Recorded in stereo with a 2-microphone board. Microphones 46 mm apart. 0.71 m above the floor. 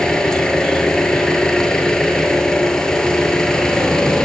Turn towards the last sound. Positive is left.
turn(degrees=15)  # may be behind; listen again after turning